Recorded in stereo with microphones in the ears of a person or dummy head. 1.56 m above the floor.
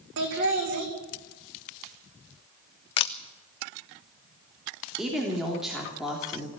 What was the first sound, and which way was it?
Laughter, 70° right (ahead or behind).